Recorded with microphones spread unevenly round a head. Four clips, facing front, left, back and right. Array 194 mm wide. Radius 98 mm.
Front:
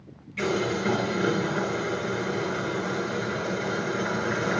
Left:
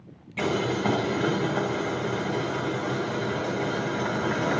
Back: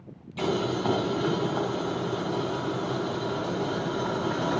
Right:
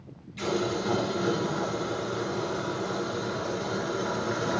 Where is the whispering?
I don't hear whispering.